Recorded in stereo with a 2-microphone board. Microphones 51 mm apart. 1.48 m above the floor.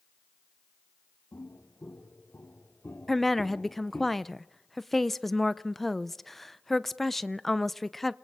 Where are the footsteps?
70° left (ahead or behind), 4.5 m; by 4.1 s 35° left (ahead or behind), 1.9 m.